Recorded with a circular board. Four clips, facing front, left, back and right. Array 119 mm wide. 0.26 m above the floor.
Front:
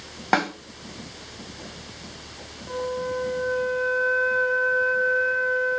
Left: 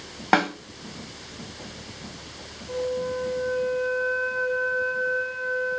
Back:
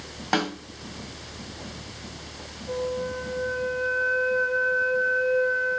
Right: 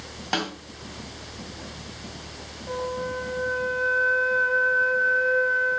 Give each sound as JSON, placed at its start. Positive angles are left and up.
{"t": 0.3, "sound": "a snare drum", "azimuth_deg": 60, "distance_m": 1.4}
{"t": 2.7, "sound": "a flute", "azimuth_deg": -50, "distance_m": 2.0}